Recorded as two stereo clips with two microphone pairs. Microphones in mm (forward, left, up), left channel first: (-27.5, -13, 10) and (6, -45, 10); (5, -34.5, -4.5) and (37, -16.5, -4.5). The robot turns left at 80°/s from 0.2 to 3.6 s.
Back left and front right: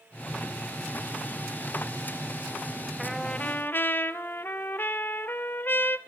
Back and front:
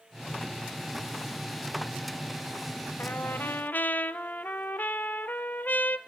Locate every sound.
3.0 s a trumpet: 130° right, 0.9 m; by 6.0 s straight behind, 0.9 m